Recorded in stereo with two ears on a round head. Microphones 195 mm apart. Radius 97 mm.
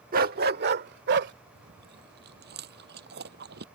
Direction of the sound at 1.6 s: 50° right (ahead or behind).